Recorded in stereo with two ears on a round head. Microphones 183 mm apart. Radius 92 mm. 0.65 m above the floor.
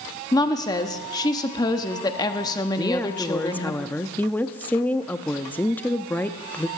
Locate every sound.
0.3 s a woman speaking: 20° left (ahead or behind), 0.9 m
2.8 s a woman speaking: 10° left (ahead or behind), 0.6 m